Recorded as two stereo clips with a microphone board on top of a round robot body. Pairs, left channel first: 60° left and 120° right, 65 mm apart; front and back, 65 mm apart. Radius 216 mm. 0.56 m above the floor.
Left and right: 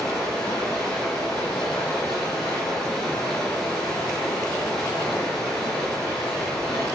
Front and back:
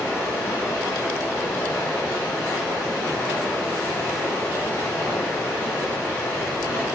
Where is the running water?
75° left, 0.8 m.